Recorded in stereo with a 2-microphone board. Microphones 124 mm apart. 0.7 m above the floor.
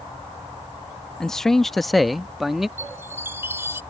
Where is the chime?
20° right (ahead or behind).